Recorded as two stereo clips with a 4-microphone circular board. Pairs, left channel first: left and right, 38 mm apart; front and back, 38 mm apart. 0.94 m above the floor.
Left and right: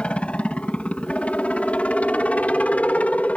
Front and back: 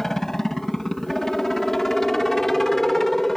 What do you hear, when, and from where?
0.0 s a helicopter: 70° left; by 3.4 s 80° left